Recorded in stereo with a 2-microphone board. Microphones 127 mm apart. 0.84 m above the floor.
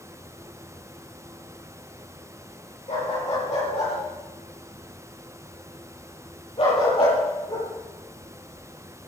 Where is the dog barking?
65° left (ahead or behind), 8.5 m; by 7.7 s 45° left (ahead or behind), 9 m.